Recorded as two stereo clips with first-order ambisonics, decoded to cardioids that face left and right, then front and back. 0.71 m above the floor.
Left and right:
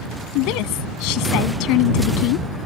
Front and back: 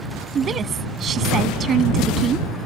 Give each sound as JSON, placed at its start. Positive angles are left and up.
{"t": 0.3, "sound": "a woman speaking", "azimuth_deg": 115}